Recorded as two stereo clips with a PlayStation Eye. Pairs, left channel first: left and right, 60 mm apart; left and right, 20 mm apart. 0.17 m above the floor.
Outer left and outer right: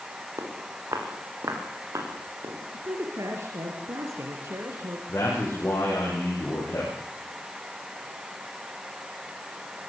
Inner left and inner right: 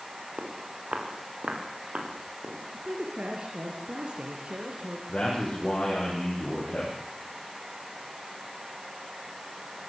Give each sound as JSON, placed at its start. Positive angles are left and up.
{"t": 0.4, "sound": "footsteps", "side_deg": -65, "distance_m": 5.0}
{"t": 2.7, "sound": "a man speaking", "side_deg": -55, "distance_m": 3.5}
{"t": 5.1, "sound": "a man speaking", "side_deg": 45, "distance_m": 7.5}